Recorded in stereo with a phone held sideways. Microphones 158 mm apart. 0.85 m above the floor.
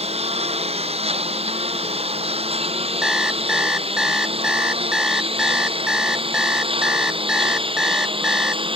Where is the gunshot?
No gunshot in this recording.